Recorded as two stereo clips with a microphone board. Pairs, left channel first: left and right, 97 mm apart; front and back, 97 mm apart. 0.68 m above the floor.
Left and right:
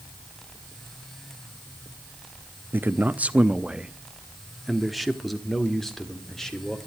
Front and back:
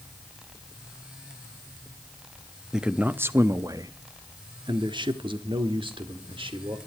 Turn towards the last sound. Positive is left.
turn(degrees=175)